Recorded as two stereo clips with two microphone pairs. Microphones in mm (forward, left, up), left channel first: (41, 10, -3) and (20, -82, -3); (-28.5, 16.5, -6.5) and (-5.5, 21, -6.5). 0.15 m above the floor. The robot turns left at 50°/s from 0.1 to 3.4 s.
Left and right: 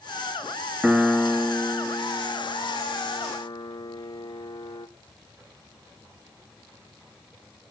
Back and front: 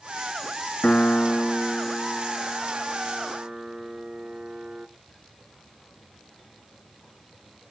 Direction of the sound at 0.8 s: 175° right.